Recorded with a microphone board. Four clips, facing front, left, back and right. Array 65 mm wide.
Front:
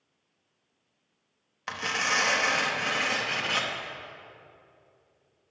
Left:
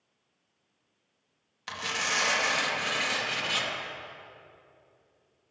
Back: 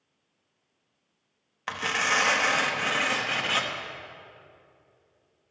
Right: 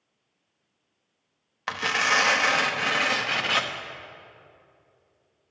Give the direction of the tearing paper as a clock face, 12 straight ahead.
3 o'clock.